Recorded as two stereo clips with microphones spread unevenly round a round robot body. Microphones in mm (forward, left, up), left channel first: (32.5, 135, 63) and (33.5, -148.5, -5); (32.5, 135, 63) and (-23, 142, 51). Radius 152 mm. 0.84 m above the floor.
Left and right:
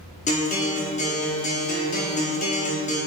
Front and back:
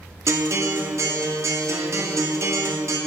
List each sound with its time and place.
0.3 s a guitar: 160° left, 2 m